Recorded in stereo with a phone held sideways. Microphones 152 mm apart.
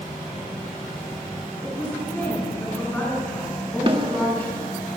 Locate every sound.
1.6 s a woman speaking: 10° left (ahead or behind), 10 m
3.9 s a snare drum: 35° right (ahead or behind), 1.8 m